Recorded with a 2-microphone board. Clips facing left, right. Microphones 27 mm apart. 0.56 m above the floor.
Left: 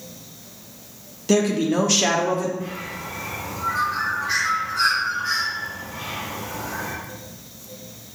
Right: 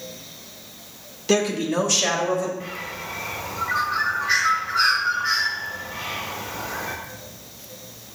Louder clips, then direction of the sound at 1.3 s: Left 2 dB; 20° right (ahead or behind).